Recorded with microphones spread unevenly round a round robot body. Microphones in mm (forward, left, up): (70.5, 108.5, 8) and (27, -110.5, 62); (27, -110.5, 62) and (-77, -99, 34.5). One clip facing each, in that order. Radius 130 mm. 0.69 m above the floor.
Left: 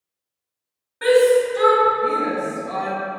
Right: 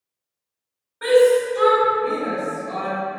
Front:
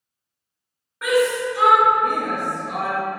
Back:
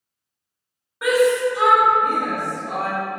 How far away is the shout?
About 1.4 m.